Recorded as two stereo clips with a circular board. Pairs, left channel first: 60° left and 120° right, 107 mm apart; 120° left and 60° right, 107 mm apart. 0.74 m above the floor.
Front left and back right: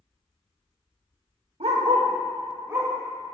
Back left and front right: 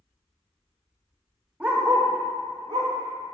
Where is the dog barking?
140° right, 0.9 m; by 3.4 s 40° right, 1.7 m.